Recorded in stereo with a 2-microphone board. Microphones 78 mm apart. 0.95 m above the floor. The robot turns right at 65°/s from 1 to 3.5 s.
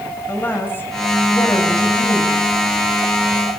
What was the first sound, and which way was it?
A woman speaking, 25° left.